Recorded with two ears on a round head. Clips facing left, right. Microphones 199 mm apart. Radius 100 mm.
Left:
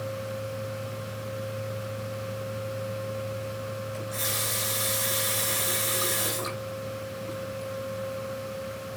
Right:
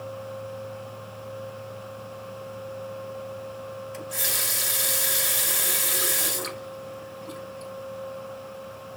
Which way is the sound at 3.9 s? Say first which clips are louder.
Left 1 dB; 70° right (ahead or behind).